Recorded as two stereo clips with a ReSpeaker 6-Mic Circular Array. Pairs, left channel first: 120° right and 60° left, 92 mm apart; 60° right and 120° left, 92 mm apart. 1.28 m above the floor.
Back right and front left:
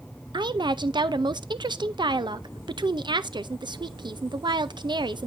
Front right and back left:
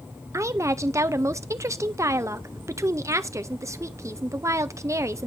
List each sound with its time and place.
0.3 s a woman speaking: 70° left, 0.6 m